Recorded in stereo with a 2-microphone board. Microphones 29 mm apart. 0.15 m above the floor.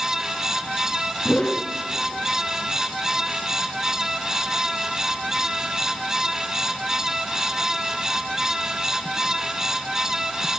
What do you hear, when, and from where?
1.2 s a whoosh: 35° left (ahead or behind), 1.0 m